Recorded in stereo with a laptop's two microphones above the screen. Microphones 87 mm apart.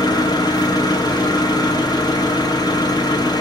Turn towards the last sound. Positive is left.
turn(degrees=50)  # may be behind; listen again after turning